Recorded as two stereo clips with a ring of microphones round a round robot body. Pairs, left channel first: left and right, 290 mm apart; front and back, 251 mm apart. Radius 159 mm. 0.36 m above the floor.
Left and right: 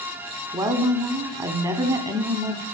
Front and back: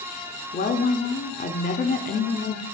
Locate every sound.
0.5 s a woman speaking: 25° right, 1.0 m